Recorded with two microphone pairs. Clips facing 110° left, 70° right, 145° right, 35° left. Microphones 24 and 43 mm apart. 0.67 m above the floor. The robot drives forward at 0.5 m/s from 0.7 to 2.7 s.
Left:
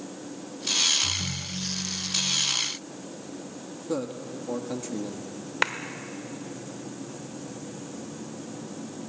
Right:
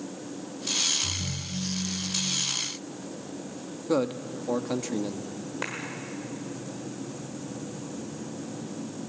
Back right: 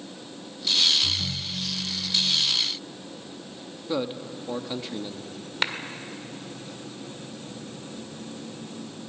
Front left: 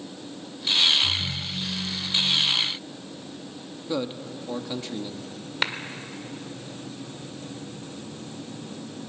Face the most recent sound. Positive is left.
turn(degrees=120)